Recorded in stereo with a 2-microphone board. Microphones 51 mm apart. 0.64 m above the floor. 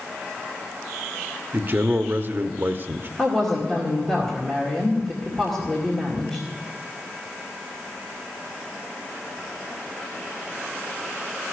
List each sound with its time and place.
1.5 s a man speaking: 45° right (ahead or behind), 0.7 m
3.2 s a woman speaking: 5° left (ahead or behind), 2 m